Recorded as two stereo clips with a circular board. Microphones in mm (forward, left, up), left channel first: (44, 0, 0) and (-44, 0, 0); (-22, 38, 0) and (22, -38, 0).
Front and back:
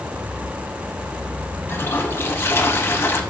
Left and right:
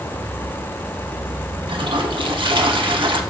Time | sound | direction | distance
1.7 | a toilet flushing | 60° right | 0.5 m